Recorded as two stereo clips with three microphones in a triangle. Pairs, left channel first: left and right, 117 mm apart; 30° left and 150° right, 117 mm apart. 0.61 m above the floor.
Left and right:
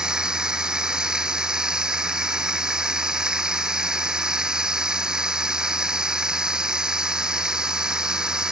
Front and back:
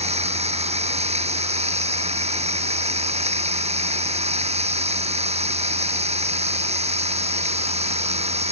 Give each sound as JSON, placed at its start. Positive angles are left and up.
{"t": 0.0, "sound": "running water", "azimuth_deg": -175}